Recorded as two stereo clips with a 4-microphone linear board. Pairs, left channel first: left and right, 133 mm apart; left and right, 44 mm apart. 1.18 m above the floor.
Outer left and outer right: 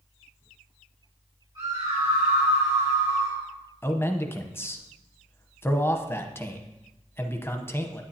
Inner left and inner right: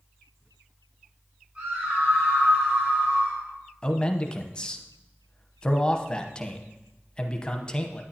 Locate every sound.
1.6 s a scream: 35° right (ahead or behind), 5 m; by 3.4 s 55° right (ahead or behind), 5 m
3.8 s a man speaking: 20° left (ahead or behind), 0.9 m